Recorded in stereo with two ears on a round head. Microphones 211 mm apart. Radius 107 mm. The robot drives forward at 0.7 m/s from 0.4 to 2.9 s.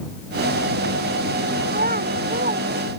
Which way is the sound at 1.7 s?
40° right (ahead or behind).